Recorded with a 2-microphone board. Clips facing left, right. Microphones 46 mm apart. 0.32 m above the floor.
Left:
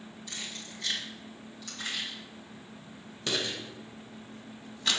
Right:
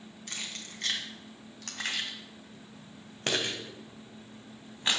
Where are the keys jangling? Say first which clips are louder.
Right 1 dB; 55° right (ahead or behind), 2.5 m; by 5.0 s 25° right (ahead or behind), 1.9 m.